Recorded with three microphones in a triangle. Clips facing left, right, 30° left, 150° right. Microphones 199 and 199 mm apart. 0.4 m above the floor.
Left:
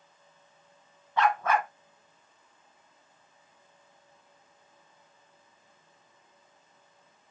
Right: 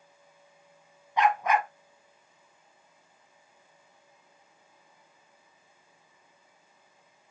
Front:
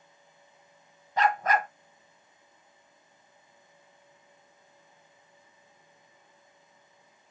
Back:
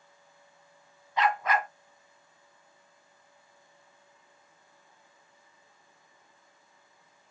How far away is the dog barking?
About 0.9 m.